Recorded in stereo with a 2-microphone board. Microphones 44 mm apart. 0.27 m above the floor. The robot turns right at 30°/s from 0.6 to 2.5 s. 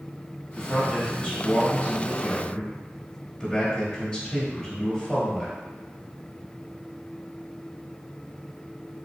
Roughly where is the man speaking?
Centre.